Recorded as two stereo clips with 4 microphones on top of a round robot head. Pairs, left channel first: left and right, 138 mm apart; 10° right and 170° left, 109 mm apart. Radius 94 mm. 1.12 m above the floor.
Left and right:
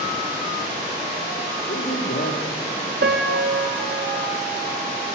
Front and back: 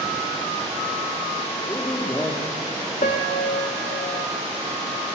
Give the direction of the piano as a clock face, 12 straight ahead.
2 o'clock.